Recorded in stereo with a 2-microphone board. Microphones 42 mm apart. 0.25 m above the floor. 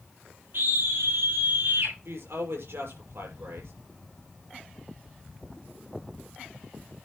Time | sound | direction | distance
0.5 | a scream | 60° right (ahead or behind) | 5.5 m
2.0 | a woman speaking | 65° right (ahead or behind) | 6.5 m